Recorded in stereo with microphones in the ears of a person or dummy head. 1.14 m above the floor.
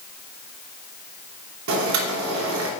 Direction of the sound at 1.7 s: 75° right (ahead or behind).